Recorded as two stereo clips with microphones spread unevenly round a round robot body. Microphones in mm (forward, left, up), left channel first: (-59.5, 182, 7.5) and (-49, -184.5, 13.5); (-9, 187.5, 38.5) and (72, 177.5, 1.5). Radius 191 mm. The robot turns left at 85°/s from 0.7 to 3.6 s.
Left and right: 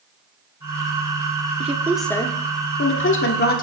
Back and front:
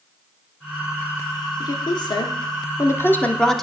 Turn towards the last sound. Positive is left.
turn(degrees=45)